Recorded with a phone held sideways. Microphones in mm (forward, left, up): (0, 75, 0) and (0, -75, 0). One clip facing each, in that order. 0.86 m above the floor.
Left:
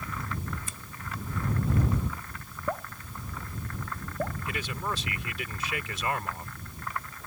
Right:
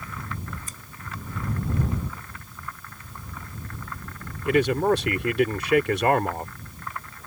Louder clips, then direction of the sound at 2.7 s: Left 10 dB; 75° left (ahead or behind).